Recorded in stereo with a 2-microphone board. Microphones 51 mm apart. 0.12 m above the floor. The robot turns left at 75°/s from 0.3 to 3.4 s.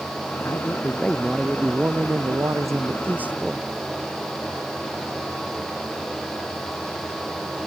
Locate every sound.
0.5 s a man speaking: 60° left; by 3.7 s 160° right